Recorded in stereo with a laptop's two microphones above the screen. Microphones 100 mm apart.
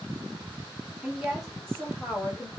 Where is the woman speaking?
5° right (ahead or behind), 2 m; by 2.5 s 40° left (ahead or behind), 1.2 m.